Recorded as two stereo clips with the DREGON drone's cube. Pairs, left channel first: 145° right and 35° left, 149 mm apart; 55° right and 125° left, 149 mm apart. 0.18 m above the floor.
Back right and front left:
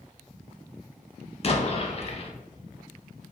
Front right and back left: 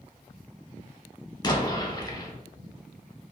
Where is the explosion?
110° right, 0.6 m.